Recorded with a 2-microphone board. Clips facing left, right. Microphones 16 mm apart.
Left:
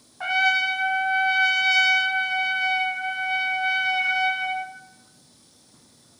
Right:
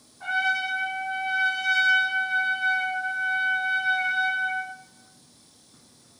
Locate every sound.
0.2 s a trumpet: 80° left, 0.5 m